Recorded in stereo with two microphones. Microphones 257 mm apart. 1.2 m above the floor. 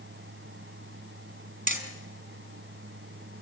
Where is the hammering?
50° right (ahead or behind), 4 m.